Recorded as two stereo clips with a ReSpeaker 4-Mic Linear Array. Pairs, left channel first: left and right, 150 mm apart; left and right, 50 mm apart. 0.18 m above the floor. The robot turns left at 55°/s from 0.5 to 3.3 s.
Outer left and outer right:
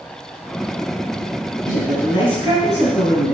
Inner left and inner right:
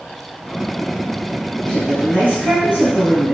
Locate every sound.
1.7 s a woman speaking: 140° left, 1.6 m; by 3.3 s 50° left, 1.6 m